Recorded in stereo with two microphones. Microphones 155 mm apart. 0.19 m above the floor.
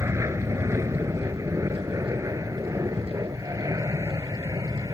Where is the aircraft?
20° right (ahead or behind).